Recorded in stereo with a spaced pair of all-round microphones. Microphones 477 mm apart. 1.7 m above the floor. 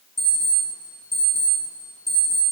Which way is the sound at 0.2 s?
20° left (ahead or behind).